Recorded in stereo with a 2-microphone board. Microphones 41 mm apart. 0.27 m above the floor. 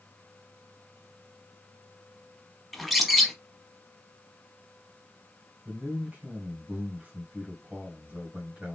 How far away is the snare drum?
I don't hear a snare drum.